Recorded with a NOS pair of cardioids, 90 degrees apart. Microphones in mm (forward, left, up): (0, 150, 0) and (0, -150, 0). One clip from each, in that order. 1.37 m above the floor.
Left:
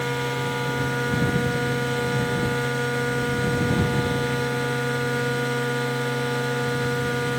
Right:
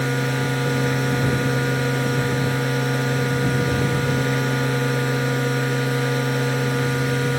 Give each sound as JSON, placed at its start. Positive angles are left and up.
{"t": 0.0, "sound": "a machine running", "azimuth_deg": -55}